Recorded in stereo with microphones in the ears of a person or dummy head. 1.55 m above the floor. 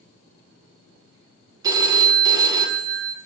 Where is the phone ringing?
25° right (ahead or behind), 0.9 m.